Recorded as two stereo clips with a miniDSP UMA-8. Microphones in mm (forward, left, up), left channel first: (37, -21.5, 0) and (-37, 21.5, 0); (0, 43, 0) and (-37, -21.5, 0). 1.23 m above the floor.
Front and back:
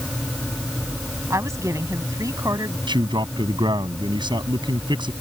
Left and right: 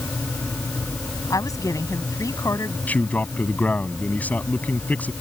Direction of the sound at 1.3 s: 95° left.